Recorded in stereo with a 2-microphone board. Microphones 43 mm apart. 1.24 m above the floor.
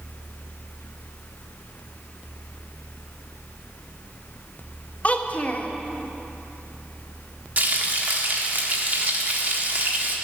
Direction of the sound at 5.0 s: 30° left (ahead or behind).